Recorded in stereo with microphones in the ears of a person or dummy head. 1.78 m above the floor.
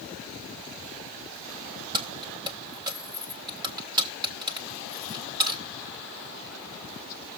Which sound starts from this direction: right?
Keys jangling, at 1.9 s.